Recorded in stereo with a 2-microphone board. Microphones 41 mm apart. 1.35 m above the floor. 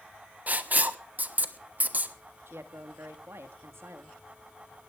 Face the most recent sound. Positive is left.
turn(degrees=-80)